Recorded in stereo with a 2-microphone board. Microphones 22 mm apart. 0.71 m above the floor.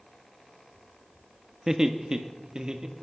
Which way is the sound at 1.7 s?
25° right (ahead or behind).